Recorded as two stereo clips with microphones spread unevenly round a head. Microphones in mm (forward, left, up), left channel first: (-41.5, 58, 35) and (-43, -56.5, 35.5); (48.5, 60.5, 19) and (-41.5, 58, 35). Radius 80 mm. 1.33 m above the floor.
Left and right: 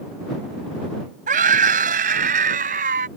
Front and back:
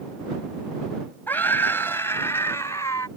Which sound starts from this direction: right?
A scream, at 1.3 s.